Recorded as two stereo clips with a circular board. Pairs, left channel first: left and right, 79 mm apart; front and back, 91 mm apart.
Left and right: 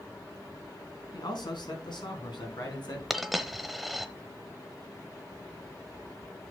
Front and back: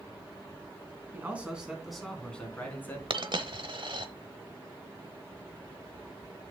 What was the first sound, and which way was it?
A man speaking, 110° left.